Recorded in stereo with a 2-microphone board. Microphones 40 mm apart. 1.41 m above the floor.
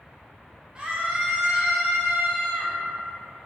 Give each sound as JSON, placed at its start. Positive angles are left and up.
{"t": 0.8, "sound": "a scream", "side_deg": -25, "distance_m": 0.8}